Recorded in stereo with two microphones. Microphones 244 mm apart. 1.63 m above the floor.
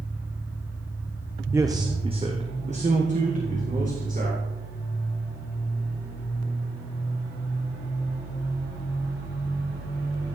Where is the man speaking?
10° right (ahead or behind), 0.5 m; by 4.4 s 35° right (ahead or behind), 2.5 m.